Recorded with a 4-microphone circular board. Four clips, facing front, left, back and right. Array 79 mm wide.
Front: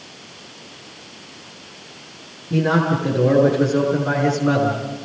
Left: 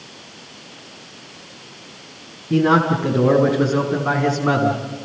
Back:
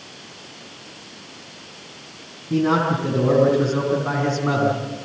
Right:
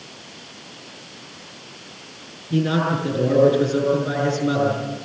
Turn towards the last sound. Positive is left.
turn(degrees=100)